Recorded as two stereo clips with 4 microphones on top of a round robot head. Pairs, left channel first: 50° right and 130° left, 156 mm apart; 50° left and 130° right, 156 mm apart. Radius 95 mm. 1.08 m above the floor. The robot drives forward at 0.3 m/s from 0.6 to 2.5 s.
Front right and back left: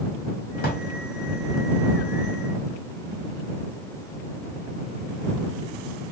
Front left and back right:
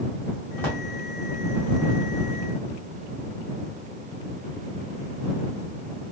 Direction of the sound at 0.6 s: 25° right.